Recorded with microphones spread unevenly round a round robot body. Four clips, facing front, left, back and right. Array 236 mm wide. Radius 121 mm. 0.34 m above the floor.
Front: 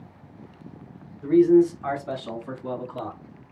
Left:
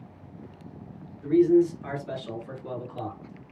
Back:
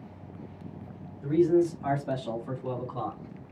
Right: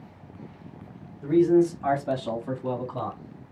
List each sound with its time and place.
1.2 s a man speaking: 70° right, 3 m; by 3.2 s 90° right, 3.5 m